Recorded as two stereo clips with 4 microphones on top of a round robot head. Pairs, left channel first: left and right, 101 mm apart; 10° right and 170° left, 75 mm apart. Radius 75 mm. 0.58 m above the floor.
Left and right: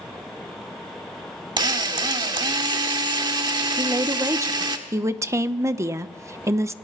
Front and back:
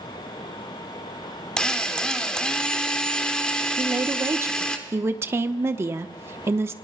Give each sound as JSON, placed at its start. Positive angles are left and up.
{"t": 1.6, "sound": "a drill", "azimuth_deg": -85, "distance_m": 1.6}
{"t": 3.8, "sound": "a woman speaking", "azimuth_deg": -145, "distance_m": 0.9}